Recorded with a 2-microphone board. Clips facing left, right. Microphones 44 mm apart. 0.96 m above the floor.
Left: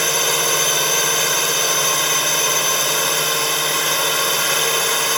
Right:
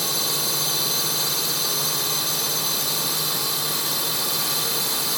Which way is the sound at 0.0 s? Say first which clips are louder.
Left 8 dB; 60° left (ahead or behind).